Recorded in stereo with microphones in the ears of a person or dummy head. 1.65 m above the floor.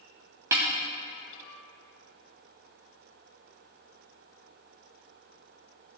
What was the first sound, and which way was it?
A snare drum, 10° right (ahead or behind).